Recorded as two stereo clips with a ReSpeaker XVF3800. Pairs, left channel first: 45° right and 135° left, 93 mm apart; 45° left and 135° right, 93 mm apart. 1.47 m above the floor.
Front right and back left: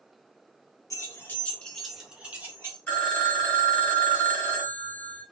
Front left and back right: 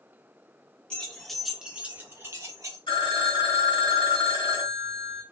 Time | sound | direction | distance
0.9 | keys jangling | 25° right | 0.8 m
2.9 | a phone ringing | 25° left | 1.5 m